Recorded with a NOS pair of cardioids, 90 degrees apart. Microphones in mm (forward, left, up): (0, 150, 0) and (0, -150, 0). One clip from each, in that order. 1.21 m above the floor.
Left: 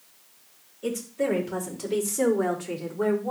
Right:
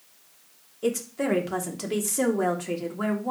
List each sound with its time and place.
0.8 s a woman speaking: 60° right, 3.5 m; by 3.3 s 35° right, 3.5 m